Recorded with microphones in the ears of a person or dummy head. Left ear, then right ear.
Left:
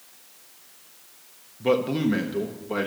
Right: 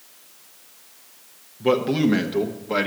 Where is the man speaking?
10° left (ahead or behind), 0.8 m; by 2.9 s 25° right (ahead or behind), 1.3 m.